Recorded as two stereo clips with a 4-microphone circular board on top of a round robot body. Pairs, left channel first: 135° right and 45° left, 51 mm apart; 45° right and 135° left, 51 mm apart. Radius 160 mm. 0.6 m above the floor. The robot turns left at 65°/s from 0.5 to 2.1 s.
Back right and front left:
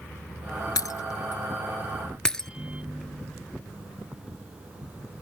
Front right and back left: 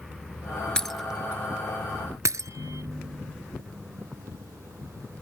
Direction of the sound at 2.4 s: 115° left.